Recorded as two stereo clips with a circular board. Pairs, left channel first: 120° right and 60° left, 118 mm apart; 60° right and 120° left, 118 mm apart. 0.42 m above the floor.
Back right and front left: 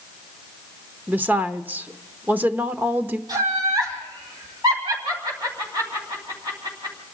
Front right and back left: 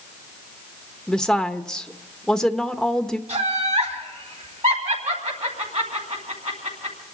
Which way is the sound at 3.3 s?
110° left.